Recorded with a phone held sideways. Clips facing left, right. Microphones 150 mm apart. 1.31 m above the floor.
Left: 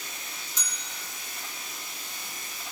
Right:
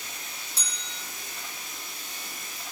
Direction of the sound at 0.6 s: 35° right (ahead or behind).